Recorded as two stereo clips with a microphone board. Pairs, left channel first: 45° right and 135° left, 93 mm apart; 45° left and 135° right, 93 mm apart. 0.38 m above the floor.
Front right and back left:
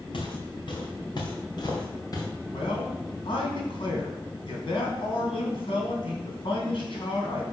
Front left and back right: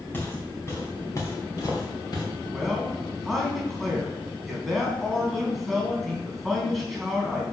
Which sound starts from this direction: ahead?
Footsteps, at 0.1 s.